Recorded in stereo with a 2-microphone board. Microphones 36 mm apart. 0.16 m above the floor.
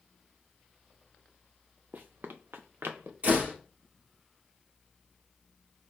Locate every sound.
1.9 s running footsteps: 50° right (ahead or behind), 0.6 m; by 3.1 s 75° right (ahead or behind), 1.3 m
3.2 s a door slam: 40° right (ahead or behind), 2.5 m